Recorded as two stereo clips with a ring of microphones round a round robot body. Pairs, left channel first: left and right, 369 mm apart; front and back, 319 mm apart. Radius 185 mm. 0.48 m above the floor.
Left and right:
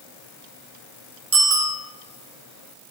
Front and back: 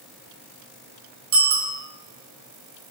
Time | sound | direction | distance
1.3 | a bicycle bell | 145° right | 4 m